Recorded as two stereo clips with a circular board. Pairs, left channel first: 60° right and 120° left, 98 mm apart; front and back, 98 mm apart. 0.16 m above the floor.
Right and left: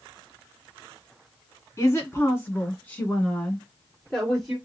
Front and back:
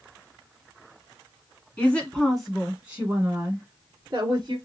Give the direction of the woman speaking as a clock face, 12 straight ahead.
2 o'clock.